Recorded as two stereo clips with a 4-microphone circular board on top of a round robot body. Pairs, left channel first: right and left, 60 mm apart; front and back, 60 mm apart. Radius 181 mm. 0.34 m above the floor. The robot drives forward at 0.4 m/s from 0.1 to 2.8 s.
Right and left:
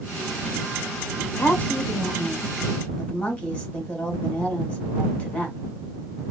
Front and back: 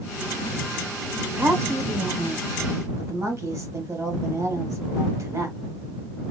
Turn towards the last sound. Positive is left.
turn(degrees=-160)